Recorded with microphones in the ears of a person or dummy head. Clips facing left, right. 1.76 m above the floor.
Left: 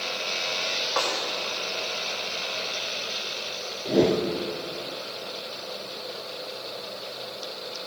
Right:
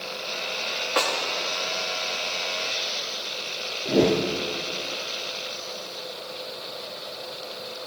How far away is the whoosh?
About 0.6 m.